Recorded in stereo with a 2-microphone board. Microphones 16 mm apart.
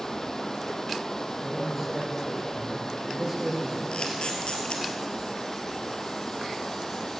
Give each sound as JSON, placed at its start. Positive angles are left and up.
{"t": 0.0, "sound": "running water", "side_deg": 30, "distance_m": 1.1}
{"t": 1.3, "sound": "a man speaking", "side_deg": -20, "distance_m": 4.0}
{"t": 3.9, "sound": "a camera shutter", "side_deg": 70, "distance_m": 2.0}